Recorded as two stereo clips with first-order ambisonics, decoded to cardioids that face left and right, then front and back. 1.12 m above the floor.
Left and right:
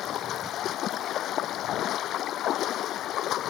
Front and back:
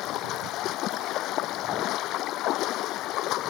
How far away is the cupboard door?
I don't hear a cupboard door.